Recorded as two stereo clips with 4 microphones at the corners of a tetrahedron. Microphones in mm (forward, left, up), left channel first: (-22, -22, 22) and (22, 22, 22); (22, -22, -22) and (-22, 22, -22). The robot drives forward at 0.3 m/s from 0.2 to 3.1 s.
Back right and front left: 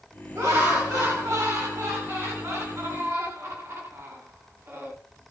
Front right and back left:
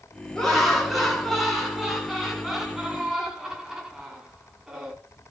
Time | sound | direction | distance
0.3 | laughter | 35° left | 2 m